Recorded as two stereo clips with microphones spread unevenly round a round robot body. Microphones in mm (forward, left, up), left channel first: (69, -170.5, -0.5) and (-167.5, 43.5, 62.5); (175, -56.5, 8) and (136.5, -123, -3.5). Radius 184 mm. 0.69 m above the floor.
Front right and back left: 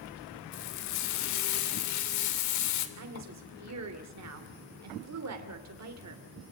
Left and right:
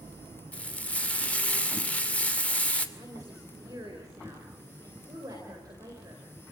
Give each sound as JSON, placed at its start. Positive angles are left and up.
{"t": 0.5, "sound": "frying", "azimuth_deg": -15, "distance_m": 2.5}
{"t": 3.0, "sound": "a woman speaking", "azimuth_deg": 180, "distance_m": 2.5}